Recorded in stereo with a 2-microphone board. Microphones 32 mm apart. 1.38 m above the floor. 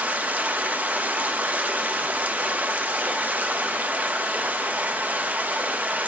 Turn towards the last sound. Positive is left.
turn(degrees=-60)  # may be behind; listen again after turning